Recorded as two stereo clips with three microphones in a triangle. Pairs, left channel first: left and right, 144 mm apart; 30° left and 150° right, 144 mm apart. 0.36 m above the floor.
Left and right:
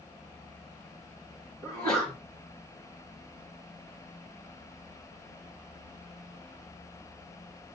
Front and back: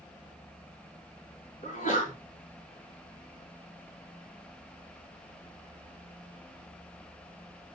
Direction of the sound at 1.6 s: 35° left.